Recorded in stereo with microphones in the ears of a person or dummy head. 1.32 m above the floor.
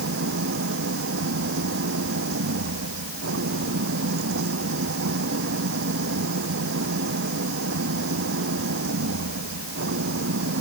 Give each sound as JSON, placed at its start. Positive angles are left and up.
{"t": 0.0, "sound": "an engine running", "side_deg": -65}